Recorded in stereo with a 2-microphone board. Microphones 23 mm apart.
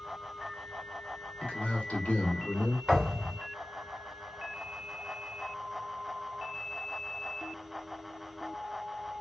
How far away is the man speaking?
About 1.0 m.